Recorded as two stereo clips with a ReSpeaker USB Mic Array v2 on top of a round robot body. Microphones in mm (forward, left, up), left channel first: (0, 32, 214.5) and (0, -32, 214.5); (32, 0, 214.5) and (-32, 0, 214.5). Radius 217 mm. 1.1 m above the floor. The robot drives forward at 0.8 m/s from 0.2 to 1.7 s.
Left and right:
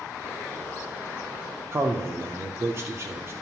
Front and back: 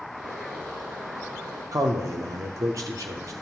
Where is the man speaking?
140° right, 0.5 m.